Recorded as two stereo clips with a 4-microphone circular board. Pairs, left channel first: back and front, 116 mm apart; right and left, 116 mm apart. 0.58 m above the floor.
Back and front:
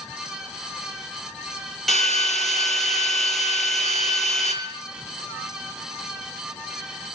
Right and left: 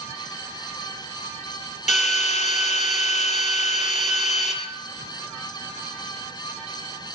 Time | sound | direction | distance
1.9 | a drill | 90° right | 5.5 m